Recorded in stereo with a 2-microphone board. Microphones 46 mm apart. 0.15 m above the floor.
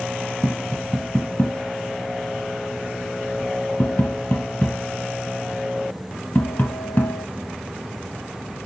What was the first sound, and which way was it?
Tapping, 45° left (ahead or behind).